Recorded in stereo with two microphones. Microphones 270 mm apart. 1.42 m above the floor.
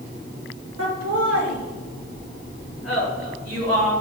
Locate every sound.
0.8 s laughter: 80° right, 4.5 m; by 3.9 s 85° right, 7.5 m